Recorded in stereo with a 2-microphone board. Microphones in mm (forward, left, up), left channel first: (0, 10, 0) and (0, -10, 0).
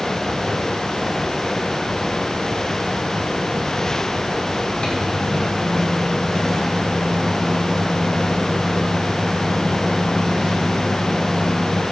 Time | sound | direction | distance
4.8 | a microwave | 45° left (ahead or behind) | 2.0 m